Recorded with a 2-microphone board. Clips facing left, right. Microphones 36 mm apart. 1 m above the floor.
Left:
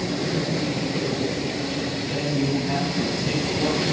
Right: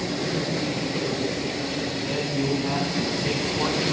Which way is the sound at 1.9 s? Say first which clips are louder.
Left 2 dB; 40° right (ahead or behind).